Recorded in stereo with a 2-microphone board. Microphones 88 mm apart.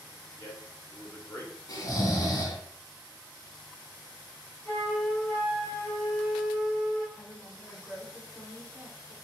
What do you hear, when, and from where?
0.4 s a man speaking: 35° left (ahead or behind), 0.9 m
1.7 s snoring: 45° left (ahead or behind), 0.9 m
4.7 s a flute: 10° left (ahead or behind), 1.7 m
7.2 s a woman speaking: 10° right (ahead or behind), 1.8 m